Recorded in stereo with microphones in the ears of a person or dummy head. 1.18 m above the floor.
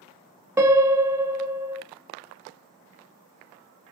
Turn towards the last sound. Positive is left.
turn(degrees=-15)  # may be behind; listen again after turning